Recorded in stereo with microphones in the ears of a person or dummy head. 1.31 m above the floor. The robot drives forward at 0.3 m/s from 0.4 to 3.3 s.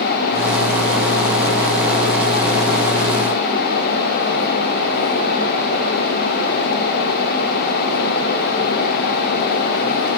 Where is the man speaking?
No man speaking in this recording.